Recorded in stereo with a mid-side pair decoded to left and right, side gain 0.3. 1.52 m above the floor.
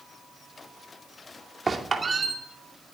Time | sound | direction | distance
1.7 | a squeak | 40° right | 2.5 m